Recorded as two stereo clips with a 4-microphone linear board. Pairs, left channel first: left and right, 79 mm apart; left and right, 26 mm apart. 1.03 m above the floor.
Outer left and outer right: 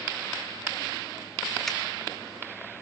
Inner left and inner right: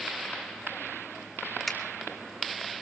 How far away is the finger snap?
About 2 m.